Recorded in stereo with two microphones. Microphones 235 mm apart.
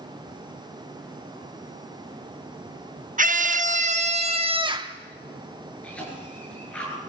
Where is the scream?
35° right (ahead or behind), 1.0 m; by 5.0 s 15° right (ahead or behind), 1.0 m.